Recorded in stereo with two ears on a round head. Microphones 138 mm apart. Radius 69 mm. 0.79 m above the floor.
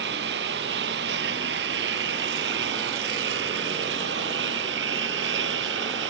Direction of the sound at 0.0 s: 80° right.